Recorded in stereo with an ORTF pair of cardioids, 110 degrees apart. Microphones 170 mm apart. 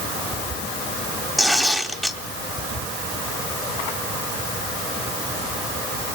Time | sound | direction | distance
1.4 | tearing paper | straight ahead | 3.5 m